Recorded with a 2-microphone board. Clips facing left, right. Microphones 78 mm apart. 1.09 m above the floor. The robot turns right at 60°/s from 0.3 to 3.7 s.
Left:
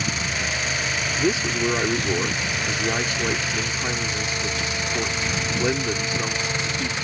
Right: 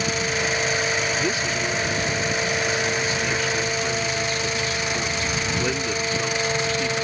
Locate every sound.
1.2 s a man speaking: 15° left; by 6.9 s 165° left